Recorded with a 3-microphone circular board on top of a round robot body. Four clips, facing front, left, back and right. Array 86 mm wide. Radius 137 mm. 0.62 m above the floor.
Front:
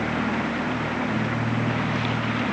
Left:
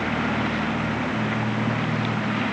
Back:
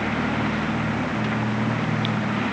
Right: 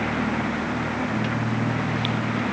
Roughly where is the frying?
I don't hear frying.